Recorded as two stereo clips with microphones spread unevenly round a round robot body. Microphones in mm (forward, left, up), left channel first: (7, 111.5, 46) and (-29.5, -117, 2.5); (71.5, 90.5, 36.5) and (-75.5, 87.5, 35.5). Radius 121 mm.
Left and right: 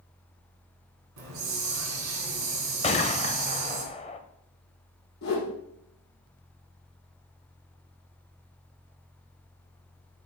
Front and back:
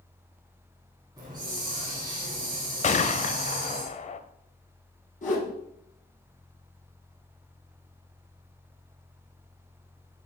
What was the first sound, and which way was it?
A hiss, 110° right.